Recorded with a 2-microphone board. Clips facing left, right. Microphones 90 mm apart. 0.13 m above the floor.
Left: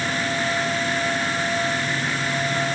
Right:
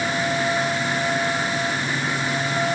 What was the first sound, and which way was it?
Only background noise.